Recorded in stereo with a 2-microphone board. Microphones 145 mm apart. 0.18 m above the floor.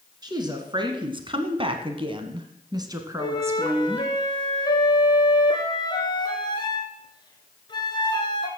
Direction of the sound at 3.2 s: 30° left (ahead or behind).